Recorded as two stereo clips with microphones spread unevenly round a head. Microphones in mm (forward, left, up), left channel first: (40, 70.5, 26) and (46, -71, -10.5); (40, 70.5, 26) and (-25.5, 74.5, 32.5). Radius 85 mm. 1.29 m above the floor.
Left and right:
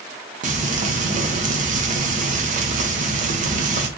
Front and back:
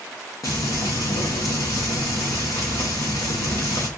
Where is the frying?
55° right, 0.8 m.